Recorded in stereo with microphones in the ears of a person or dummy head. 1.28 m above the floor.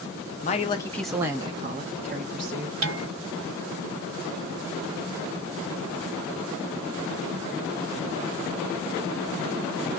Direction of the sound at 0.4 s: 40° left (ahead or behind).